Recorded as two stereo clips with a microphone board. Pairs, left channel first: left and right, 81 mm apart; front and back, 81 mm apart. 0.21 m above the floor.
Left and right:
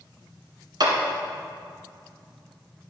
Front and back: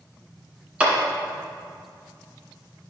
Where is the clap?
110° right, 1.6 m.